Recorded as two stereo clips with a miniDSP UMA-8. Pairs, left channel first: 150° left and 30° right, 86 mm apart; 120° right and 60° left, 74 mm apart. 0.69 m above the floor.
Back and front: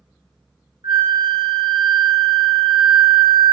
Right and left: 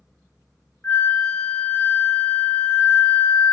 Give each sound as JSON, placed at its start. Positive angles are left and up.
{"t": 0.8, "sound": "a flute", "azimuth_deg": -50, "distance_m": 0.5}